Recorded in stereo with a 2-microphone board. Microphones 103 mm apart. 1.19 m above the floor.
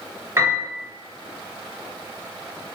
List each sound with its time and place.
0.4 s a piano: 30° right (ahead or behind), 1.1 m